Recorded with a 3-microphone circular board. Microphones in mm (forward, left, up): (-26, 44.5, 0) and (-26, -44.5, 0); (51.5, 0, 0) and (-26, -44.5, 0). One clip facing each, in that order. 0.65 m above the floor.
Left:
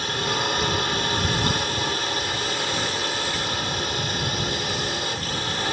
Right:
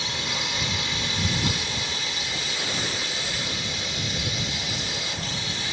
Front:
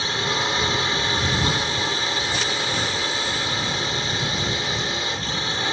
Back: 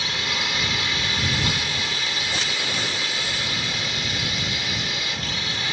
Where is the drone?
80° left.